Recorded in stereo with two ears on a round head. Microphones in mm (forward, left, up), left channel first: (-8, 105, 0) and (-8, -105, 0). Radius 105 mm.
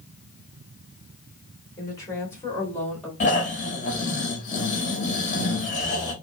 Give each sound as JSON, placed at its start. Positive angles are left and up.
{"t": 1.8, "sound": "a woman speaking", "side_deg": 20, "distance_m": 2.5}
{"t": 3.2, "sound": "snoring", "side_deg": 35, "distance_m": 1.8}